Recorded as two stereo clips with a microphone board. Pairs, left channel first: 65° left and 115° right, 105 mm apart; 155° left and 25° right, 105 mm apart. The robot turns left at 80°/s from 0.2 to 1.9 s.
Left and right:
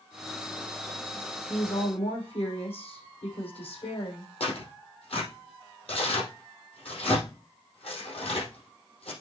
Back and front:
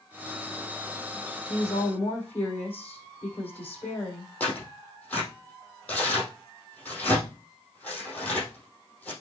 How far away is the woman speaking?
About 5.5 m.